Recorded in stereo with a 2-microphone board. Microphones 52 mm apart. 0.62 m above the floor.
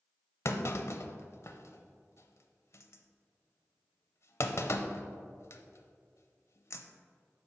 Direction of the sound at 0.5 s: 60° left (ahead or behind).